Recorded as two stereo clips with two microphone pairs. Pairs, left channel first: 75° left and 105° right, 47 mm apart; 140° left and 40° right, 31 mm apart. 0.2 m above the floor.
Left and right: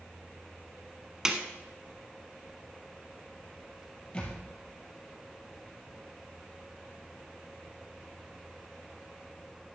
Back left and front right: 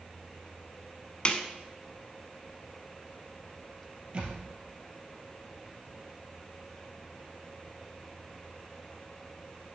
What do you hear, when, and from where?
1.2 s a snare drum: straight behind, 1.0 m
4.1 s a thud: 10° left, 2.5 m